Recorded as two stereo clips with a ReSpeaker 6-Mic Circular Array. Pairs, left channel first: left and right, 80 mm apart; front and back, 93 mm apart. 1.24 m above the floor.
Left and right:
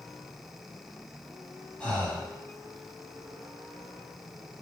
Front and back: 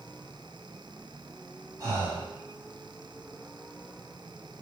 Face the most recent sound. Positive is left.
turn(degrees=160)